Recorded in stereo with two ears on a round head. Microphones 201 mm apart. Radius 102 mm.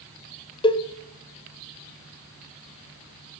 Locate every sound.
0.6 s a cowbell: 25° left (ahead or behind), 0.9 m